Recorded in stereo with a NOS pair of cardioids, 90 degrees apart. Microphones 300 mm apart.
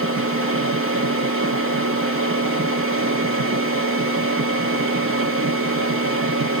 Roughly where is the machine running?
Ahead right.